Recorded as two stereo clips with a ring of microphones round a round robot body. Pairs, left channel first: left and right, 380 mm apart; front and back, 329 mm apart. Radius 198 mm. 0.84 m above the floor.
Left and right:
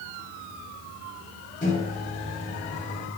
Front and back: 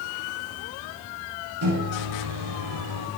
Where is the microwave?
160° left, 4 m.